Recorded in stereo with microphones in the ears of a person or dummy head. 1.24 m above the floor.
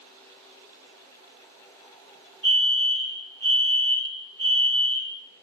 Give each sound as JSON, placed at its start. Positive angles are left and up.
{"t": 2.4, "sound": "a fire alarm", "side_deg": -65, "distance_m": 2.5}